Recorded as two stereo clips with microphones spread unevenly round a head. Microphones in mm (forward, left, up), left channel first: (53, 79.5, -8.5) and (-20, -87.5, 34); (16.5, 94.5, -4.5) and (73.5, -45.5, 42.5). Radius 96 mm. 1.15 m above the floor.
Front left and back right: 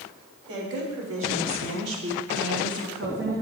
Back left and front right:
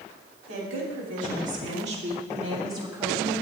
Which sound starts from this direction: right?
A woman speaking, at 0.5 s.